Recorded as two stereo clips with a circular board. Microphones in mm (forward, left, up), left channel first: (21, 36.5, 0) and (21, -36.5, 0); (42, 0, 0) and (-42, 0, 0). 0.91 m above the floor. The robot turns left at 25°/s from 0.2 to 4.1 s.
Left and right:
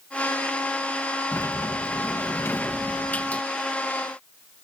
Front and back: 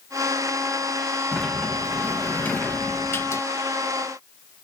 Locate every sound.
1.3 s a sliding door: 80° left; by 3.4 s 30° left